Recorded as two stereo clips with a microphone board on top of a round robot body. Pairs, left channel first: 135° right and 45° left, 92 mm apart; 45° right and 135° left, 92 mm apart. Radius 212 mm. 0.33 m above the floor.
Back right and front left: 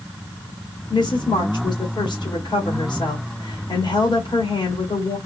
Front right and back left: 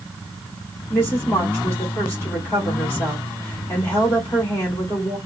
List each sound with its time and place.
0.9 s a woman speaking: 110° right, 2 m